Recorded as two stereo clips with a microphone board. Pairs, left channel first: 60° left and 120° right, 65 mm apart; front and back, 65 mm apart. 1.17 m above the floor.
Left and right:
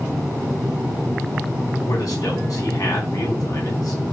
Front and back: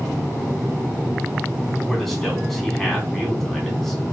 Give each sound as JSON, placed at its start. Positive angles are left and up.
{"t": 1.9, "sound": "a man speaking", "azimuth_deg": 80, "distance_m": 3.5}